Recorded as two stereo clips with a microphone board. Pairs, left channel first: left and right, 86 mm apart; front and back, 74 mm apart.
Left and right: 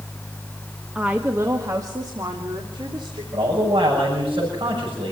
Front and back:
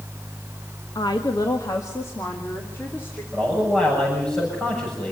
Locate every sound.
0.9 s a woman speaking: 10° right, 1.5 m; by 3.2 s 65° right, 3.5 m
3.3 s a man speaking: 70° right, 7.5 m